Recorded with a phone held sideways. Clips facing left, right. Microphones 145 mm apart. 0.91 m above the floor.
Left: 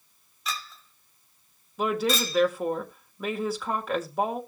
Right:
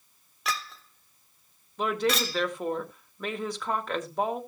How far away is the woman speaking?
About 2.5 m.